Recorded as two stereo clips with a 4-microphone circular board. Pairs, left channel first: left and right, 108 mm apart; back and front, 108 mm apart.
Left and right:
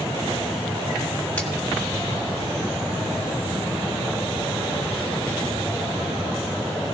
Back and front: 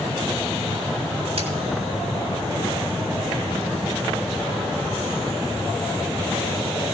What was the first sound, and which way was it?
A crack, 15° left.